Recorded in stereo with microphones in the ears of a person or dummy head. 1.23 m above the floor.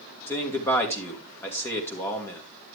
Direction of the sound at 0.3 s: 15° left (ahead or behind).